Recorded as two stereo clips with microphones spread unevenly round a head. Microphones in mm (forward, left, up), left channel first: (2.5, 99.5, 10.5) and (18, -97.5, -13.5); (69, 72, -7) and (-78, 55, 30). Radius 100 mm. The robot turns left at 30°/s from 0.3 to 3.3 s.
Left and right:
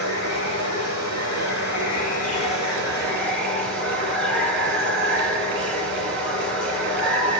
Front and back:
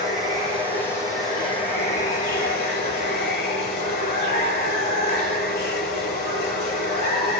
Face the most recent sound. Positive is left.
turn(degrees=10)